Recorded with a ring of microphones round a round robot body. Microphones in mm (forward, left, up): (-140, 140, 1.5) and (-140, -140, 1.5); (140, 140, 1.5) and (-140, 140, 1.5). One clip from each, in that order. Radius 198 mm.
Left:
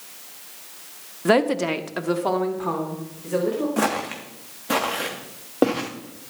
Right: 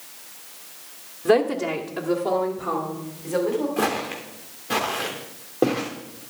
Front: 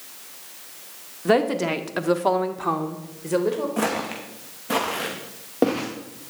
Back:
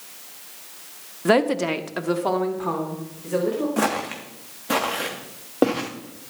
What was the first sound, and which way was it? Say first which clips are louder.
A woman speaking: even, back 1 dB; 135° left.